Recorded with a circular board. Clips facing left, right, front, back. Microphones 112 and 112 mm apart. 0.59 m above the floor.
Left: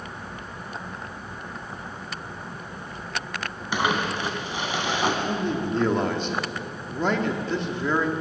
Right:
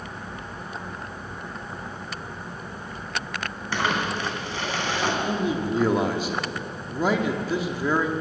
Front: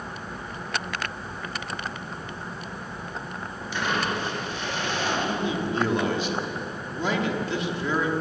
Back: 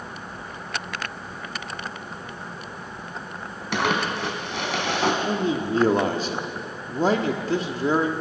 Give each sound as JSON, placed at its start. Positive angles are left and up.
{"t": 3.7, "sound": "crumpling", "azimuth_deg": 165, "distance_m": 3.5}
{"t": 5.2, "sound": "a man speaking", "azimuth_deg": -170, "distance_m": 1.4}